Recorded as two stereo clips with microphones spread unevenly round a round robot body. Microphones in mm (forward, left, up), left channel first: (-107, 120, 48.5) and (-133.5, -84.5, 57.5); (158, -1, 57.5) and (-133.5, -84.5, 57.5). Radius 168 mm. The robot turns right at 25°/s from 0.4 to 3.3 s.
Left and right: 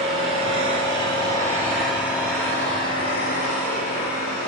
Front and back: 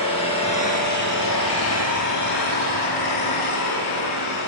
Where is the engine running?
55° right, 9.5 m; by 4.5 s 15° left, 9.5 m.